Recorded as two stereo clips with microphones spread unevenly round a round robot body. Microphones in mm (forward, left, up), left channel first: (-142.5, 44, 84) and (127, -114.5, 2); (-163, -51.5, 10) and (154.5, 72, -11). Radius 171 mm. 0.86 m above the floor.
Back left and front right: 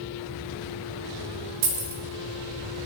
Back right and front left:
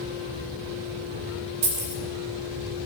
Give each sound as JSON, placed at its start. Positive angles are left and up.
{"t": 1.6, "sound": "keys jangling", "azimuth_deg": -45, "distance_m": 1.2}